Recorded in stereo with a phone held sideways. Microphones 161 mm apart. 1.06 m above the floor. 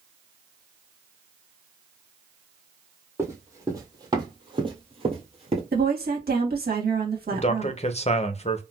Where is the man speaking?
40° left (ahead or behind), 0.6 m.